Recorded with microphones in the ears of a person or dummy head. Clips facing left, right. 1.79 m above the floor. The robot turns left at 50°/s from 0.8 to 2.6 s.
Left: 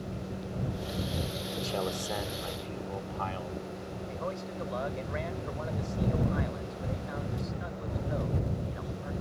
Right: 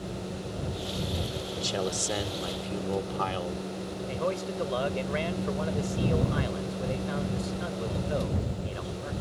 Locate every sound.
1.6 s a man speaking: 5° right; by 3.6 s 55° right
4.1 s a man speaking: 55° right (ahead or behind)